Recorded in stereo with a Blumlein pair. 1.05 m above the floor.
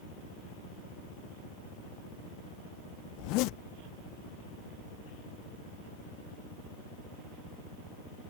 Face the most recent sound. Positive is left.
turn(degrees=40)